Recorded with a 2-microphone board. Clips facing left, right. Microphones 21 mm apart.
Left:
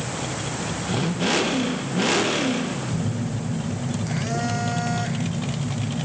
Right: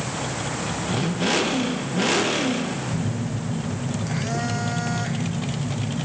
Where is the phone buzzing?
5° right (ahead or behind), 1.3 m.